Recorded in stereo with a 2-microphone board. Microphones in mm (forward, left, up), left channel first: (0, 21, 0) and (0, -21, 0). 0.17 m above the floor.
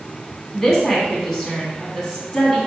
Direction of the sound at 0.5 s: 15° left (ahead or behind).